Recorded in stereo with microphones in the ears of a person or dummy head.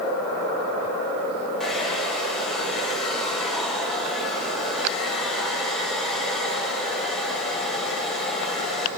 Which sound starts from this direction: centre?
A hair dryer, at 1.6 s.